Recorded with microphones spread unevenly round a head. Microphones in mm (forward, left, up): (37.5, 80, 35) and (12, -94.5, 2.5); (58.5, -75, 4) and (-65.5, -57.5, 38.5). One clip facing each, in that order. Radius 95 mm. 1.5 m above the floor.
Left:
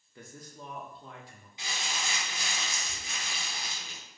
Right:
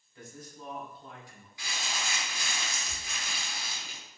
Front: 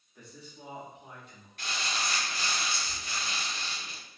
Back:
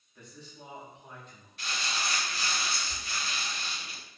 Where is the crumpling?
50° left, 0.6 m.